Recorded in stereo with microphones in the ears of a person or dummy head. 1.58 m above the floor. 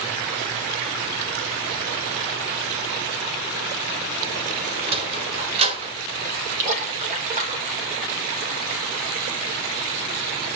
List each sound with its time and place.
4.9 s a sliding door: 25° right (ahead or behind), 1.2 m
6.6 s a splash: 40° right (ahead or behind), 1.1 m